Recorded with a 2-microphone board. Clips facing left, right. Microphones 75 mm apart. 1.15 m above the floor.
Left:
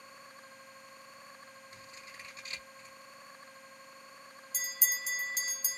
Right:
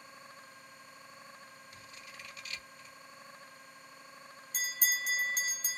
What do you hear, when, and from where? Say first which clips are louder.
1.7 s scissors: left 1 dB; 30° left (ahead or behind), 1.0 m
4.5 s a bell: right 4 dB; 55° right (ahead or behind), 0.6 m